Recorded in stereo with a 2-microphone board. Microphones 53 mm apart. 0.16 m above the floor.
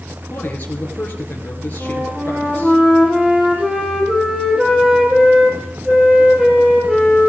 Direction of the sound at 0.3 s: 30° left (ahead or behind).